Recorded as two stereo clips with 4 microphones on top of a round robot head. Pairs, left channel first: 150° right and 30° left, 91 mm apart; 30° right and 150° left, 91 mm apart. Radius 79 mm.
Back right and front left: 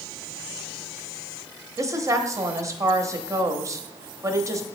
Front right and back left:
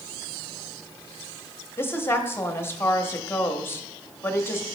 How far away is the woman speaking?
About 1.0 m.